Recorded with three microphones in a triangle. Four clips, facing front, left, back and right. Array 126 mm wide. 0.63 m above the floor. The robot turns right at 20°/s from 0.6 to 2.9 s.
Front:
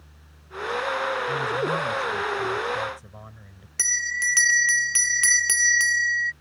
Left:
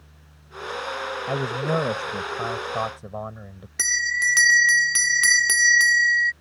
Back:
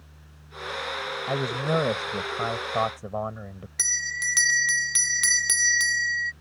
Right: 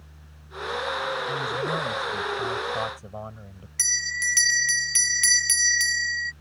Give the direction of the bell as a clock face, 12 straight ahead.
9 o'clock.